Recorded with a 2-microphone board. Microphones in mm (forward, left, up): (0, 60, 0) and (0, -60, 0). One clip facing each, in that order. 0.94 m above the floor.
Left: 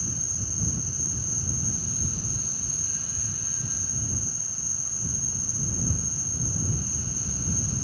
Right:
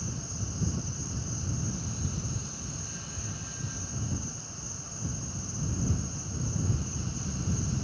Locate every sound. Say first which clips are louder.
0.0 s an insect: even; 20° right (ahead or behind)